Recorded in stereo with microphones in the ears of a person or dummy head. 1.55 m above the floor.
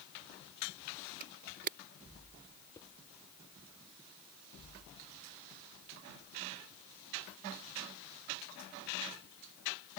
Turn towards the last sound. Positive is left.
turn(degrees=10)  # may be behind; listen again after turning